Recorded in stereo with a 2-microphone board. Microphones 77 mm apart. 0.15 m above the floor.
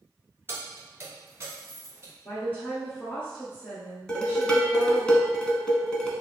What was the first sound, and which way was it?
Keys jangling, 30° right (ahead or behind).